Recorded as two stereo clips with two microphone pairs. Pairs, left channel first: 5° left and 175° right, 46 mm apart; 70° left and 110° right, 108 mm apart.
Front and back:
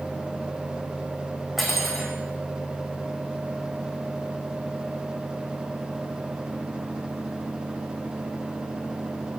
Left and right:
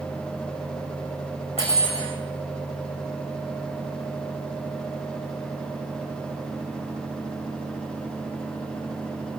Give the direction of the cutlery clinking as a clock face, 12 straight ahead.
9 o'clock.